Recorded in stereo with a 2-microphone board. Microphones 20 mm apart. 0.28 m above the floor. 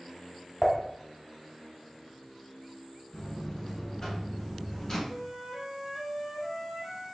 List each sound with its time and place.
0.6 s dishes clattering: centre (ahead or behind), 1.2 m
3.1 s a buzzer: 30° left (ahead or behind), 1.9 m
5.1 s a flute: 25° right (ahead or behind), 2 m